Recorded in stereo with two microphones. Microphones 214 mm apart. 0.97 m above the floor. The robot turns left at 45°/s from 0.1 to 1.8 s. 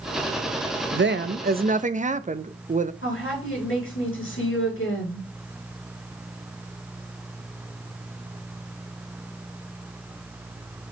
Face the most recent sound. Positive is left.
turn(degrees=80)